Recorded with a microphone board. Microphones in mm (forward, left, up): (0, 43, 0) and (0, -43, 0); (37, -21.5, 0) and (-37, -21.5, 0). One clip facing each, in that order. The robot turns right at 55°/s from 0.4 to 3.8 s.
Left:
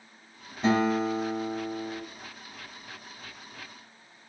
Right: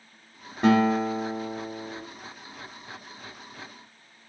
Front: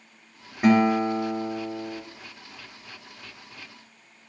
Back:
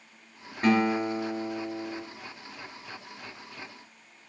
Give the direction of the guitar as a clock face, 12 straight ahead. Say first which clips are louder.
Right 3 dB, front 5 dB; 3 o'clock.